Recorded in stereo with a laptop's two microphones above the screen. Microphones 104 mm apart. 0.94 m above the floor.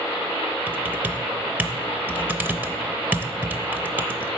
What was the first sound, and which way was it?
Typing on a keyboard, 15° right (ahead or behind).